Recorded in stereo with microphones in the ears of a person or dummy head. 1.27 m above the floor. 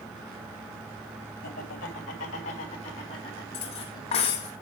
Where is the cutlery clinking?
35° left (ahead or behind), 1.0 m.